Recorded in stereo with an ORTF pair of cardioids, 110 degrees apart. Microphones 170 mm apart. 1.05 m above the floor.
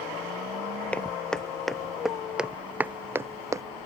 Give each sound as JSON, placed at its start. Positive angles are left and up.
{"t": 0.9, "sound": "footsteps", "azimuth_deg": 5}